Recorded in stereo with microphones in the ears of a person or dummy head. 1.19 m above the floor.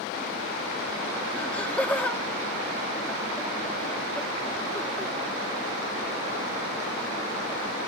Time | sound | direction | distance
1.4 | laughter | 10° left (ahead or behind) | ?